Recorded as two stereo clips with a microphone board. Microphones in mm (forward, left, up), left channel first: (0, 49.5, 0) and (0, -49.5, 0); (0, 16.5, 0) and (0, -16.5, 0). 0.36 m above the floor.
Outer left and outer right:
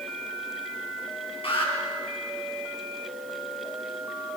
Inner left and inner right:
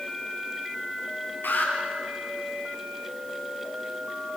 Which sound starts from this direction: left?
An alarm, at 1.4 s.